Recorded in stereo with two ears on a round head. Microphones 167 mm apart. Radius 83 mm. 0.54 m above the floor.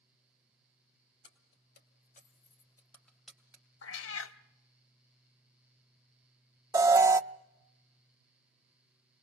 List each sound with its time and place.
1.2 s keys jangling: 70° left (ahead or behind), 2.5 m; by 3.6 s 10° right (ahead or behind), 2.5 m
3.8 s a cat meowing: 70° left (ahead or behind), 0.8 m
6.7 s an alarm: 15° right (ahead or behind), 0.5 m